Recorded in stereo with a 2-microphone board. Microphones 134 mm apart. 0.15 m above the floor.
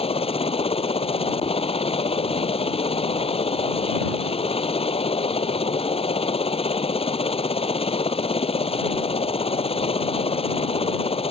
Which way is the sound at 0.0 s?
45° left (ahead or behind).